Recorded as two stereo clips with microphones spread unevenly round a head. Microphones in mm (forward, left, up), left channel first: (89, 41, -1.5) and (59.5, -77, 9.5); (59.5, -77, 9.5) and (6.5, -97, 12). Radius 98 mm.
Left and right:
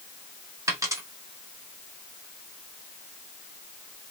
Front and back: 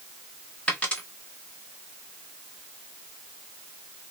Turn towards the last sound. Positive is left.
turn(degrees=-45)